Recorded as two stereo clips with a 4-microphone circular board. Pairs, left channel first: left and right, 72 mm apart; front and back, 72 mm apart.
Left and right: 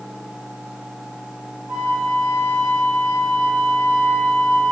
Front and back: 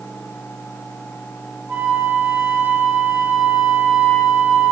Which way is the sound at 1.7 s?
115° left.